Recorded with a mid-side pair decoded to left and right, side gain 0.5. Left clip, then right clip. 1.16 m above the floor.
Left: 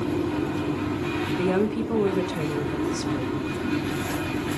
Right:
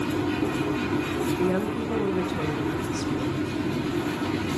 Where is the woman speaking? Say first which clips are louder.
Left 2 dB; 25° left, 0.9 m.